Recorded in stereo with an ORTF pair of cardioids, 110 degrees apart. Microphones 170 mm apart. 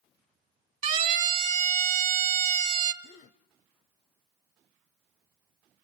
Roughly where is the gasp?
Ahead left.